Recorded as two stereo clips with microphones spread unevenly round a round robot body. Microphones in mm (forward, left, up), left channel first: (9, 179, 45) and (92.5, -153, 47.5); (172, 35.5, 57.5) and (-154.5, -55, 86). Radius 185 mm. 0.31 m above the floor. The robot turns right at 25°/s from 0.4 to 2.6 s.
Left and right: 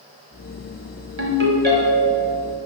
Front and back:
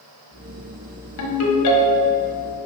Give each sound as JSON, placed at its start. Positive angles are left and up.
{"t": 1.2, "sound": "a ringtone", "azimuth_deg": -25, "distance_m": 1.3}